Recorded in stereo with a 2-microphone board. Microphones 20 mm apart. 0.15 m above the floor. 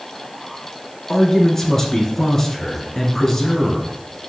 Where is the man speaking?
25° left (ahead or behind), 1.9 m.